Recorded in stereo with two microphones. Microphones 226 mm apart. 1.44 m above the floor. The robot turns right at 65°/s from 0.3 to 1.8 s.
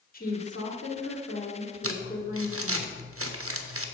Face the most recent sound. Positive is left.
turn(degrees=-75)  # may be behind; listen again after turning